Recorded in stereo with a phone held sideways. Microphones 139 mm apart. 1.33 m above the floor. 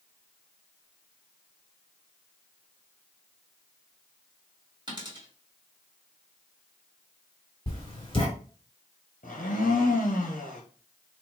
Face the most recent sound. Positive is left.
turn(degrees=75)  # may be behind; listen again after turning